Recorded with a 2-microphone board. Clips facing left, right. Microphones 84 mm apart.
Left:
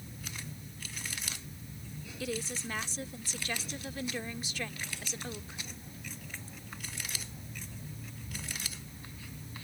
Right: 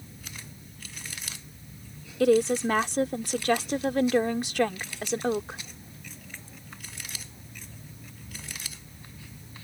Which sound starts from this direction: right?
A woman speaking, at 2.2 s.